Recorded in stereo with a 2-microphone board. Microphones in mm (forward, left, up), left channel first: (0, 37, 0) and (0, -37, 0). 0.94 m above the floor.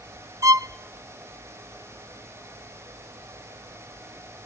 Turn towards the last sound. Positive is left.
turn(degrees=-45)  # may be behind; listen again after turning